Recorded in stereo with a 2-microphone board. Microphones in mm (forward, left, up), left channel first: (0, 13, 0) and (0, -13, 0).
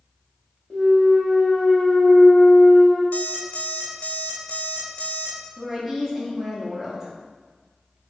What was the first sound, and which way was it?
A clunk, 45° left (ahead or behind).